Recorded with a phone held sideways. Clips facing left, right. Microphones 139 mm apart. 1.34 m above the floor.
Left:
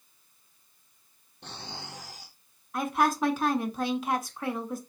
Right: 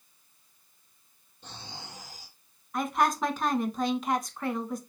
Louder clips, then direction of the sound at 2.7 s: Left 1 dB; 5° left (ahead or behind).